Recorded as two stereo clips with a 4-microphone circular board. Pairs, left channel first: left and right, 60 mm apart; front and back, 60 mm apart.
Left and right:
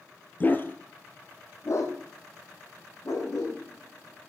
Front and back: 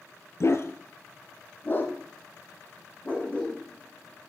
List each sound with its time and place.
0.4 s a dog barking: 30° left, 1.1 m; by 4.3 s 65° left, 4 m